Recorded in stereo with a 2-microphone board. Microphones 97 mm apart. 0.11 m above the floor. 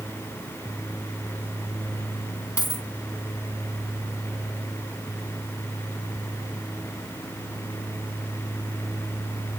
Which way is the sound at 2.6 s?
40° left (ahead or behind).